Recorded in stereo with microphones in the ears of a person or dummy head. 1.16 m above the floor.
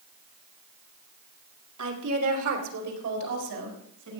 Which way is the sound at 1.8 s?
80° right.